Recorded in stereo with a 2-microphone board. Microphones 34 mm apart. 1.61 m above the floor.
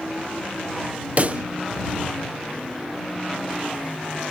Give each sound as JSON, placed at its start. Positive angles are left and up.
{"t": 1.2, "sound": "a pop", "side_deg": -45}